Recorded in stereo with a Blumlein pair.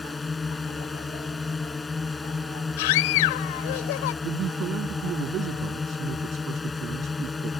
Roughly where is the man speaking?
Ahead right.